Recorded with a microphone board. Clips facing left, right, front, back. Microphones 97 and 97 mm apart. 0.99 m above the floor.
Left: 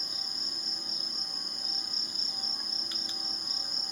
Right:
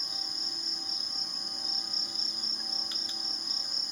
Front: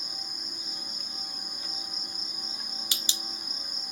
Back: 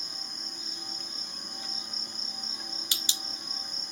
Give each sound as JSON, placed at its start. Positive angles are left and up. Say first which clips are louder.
{"t": 0.0, "sound": "an insect", "louder": "right 1 dB, front 1 dB", "azimuth_deg": 75}